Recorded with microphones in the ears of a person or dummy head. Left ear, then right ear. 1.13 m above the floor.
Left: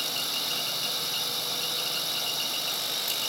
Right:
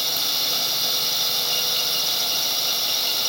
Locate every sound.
0.0 s a drone: 10° right (ahead or behind)